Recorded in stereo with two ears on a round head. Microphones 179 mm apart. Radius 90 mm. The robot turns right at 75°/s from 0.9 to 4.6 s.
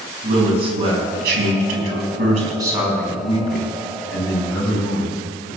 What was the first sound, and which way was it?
A man speaking, 150° right.